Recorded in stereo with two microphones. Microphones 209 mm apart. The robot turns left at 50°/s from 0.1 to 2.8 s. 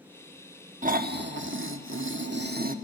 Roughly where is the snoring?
Ahead right.